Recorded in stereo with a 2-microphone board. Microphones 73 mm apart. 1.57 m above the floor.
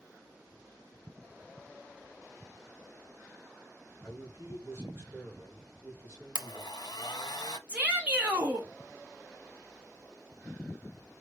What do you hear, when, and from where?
4.0 s a man speaking: 35° right (ahead or behind), 3 m
6.3 s a blender: 75° left (ahead or behind), 0.7 m
7.7 s a shout: 20° right (ahead or behind), 1.8 m